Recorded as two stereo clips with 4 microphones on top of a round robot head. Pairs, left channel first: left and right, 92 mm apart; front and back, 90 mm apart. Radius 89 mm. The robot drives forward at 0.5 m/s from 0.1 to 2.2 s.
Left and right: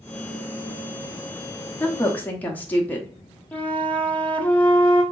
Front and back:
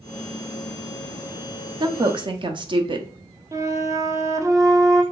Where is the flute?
155° left, 0.9 m.